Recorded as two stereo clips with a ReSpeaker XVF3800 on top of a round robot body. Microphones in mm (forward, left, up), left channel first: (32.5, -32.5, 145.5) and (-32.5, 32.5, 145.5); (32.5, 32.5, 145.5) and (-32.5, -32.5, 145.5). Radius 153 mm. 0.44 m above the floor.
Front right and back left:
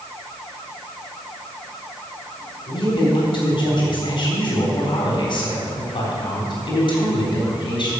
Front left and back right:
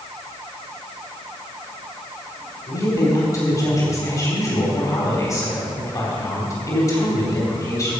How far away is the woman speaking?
About 4 m.